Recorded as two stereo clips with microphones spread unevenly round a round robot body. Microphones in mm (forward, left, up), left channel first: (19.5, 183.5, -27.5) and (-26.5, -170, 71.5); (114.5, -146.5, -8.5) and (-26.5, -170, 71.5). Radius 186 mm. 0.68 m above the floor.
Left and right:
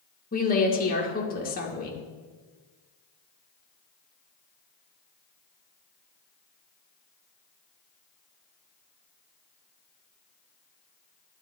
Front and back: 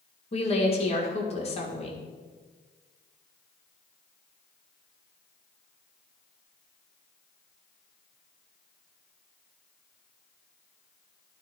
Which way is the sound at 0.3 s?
25° left.